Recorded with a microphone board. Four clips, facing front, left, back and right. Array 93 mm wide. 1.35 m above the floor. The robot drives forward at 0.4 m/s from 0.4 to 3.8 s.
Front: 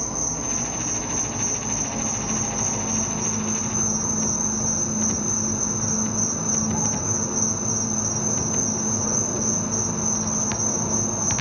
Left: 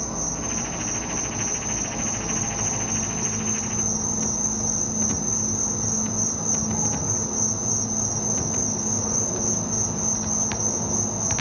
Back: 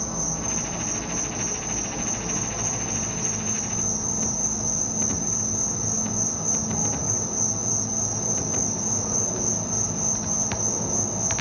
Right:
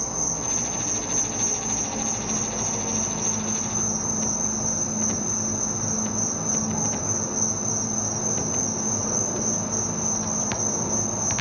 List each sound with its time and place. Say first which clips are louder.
0.0 s an insect: left 1 dB, front 1 dB; 15° right, 2 m; by 11.4 s 30° right, 0.9 m